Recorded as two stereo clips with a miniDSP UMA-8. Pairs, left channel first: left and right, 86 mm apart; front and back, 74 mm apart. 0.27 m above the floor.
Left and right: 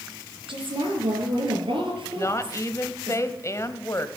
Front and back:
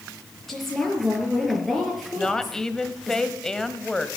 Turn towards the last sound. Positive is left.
turn(degrees=75)